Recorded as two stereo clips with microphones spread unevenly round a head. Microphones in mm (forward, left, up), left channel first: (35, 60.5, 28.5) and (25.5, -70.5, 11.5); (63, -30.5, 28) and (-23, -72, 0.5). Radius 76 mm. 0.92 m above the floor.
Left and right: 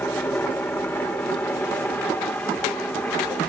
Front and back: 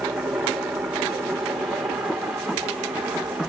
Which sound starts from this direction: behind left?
A helicopter, at 0.0 s.